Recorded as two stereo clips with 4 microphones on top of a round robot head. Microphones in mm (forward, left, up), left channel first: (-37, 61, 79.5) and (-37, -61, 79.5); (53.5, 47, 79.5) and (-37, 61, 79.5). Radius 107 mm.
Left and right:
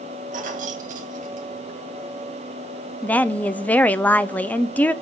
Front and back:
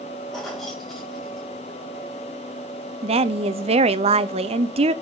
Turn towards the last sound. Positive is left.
turn(degrees=170)